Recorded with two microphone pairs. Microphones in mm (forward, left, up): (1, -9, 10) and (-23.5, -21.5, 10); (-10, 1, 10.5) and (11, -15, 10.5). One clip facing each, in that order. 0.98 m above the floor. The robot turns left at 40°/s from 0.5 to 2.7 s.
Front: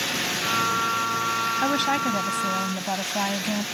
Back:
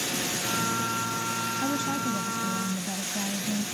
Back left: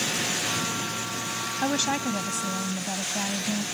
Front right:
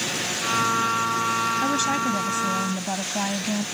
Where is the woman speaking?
70° left; by 3.6 s 25° left.